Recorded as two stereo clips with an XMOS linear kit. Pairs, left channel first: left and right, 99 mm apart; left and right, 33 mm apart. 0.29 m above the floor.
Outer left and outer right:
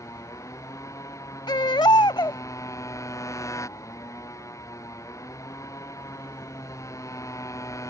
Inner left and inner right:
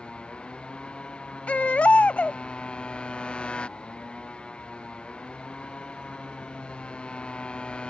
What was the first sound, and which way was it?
A motorcycle, 30° left (ahead or behind).